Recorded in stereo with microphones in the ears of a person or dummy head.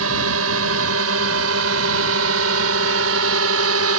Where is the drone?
80° right.